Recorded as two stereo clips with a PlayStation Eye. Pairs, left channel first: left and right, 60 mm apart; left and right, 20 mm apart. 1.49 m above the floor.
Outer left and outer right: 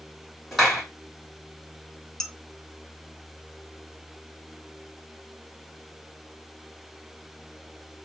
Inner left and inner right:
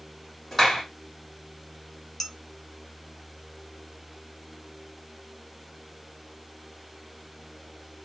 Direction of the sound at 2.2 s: 10° left (ahead or behind).